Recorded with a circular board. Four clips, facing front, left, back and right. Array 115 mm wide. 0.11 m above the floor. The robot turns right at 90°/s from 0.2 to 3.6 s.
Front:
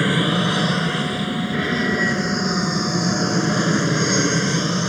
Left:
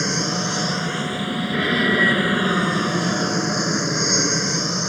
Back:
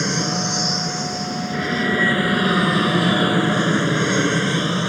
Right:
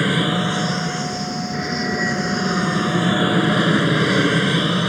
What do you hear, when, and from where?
0.0 s an aircraft: 50° right; by 4.9 s 105° right